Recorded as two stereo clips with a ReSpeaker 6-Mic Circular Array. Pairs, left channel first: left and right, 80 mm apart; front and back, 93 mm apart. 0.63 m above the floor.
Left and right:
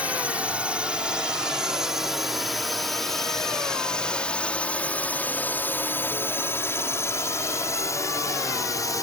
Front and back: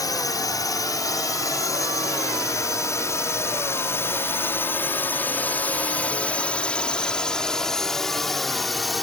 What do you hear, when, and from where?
0.0 s a drone: 25° right; by 9.0 s 90° left